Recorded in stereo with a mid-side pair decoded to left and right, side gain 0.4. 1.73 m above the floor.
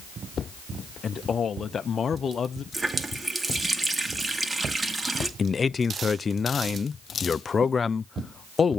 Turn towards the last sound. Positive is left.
turn(degrees=40)